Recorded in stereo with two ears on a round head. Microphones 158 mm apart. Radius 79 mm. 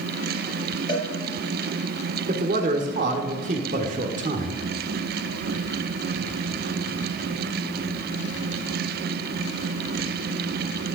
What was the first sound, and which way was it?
A cowbell, 25° left (ahead or behind).